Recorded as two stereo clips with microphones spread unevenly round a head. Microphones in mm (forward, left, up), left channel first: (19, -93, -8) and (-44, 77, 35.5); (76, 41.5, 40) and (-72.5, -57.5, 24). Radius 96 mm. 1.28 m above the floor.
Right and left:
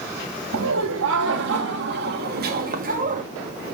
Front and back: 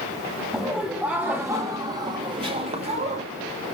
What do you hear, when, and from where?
0.5 s laughter: 125° left, 3 m; by 3.2 s 160° left, 2.5 m